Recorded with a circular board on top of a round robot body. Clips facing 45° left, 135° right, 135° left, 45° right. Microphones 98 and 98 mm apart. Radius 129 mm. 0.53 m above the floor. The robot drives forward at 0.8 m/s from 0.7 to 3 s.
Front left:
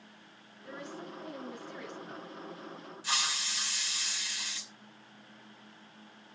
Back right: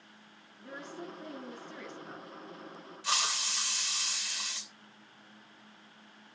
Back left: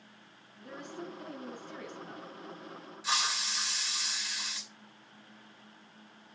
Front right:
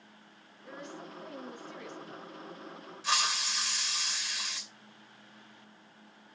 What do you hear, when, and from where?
0.6 s a woman speaking: 165° left, 7 m; by 2.3 s 170° left, 8 m
3.0 s a hiss: 140° right, 3 m